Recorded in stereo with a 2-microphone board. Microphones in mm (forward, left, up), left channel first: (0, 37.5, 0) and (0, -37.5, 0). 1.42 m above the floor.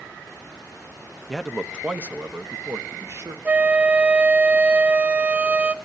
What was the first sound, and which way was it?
A man speaking, 5° left (ahead or behind).